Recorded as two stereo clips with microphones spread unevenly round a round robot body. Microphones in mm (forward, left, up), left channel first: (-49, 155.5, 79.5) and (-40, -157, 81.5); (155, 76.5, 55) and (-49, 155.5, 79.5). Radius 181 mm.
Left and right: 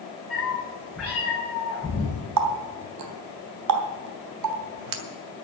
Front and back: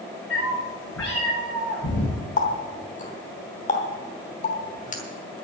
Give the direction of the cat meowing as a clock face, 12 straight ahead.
12 o'clock.